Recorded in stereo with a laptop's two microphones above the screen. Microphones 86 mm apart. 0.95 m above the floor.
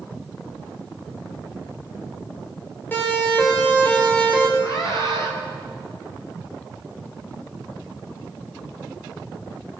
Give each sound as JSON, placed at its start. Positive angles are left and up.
{"t": 2.9, "sound": "a siren", "side_deg": 20, "distance_m": 6.5}
{"t": 4.6, "sound": "a scream", "side_deg": 40, "distance_m": 5.5}